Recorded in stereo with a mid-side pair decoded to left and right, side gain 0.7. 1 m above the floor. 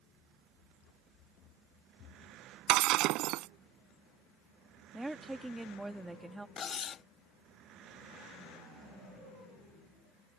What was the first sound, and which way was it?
Running footsteps, 50° left.